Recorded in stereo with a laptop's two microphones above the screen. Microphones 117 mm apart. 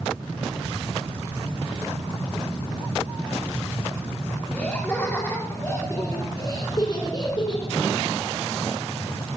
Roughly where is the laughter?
Centre.